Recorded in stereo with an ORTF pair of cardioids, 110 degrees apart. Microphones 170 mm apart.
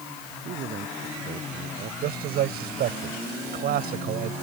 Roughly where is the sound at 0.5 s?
Ahead right.